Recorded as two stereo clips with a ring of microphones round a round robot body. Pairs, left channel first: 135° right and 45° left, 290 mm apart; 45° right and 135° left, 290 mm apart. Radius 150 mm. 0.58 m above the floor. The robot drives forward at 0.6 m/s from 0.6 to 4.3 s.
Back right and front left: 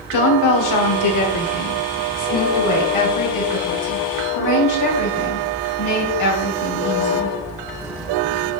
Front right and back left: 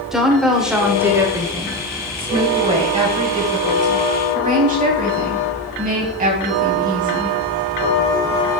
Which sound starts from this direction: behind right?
A woman speaking, at 0.1 s.